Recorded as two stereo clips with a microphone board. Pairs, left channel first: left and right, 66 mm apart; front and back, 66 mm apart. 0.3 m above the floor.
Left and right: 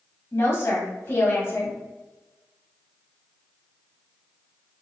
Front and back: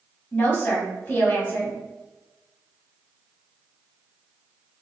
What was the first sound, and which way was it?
A woman speaking, 50° left.